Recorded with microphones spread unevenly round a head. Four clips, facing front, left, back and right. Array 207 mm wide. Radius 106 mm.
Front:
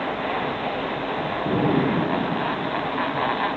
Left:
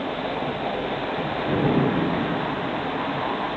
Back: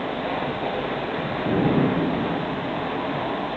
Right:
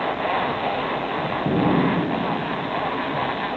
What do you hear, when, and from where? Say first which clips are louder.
1.4 s an explosion: right 2 dB, back 1 dB; 100° right, 2.5 m